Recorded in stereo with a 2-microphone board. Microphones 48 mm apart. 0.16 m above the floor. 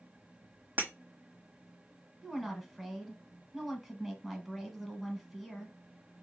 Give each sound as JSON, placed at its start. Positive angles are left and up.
{"t": 0.8, "sound": "breaking glass", "side_deg": -45, "distance_m": 1.2}
{"t": 2.2, "sound": "a woman speaking", "side_deg": 0, "distance_m": 1.1}